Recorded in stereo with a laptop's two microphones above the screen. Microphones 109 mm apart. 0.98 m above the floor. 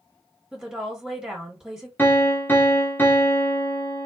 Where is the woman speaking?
5° right (ahead or behind), 1.6 m.